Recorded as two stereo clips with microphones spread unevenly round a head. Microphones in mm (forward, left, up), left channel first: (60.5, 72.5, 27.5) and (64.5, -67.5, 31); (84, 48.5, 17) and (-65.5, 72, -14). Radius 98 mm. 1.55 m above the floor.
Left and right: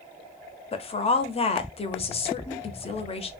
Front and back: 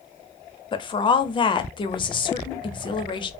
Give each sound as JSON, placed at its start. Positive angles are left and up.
{"t": 0.7, "sound": "a woman speaking", "azimuth_deg": 45, "distance_m": 0.5}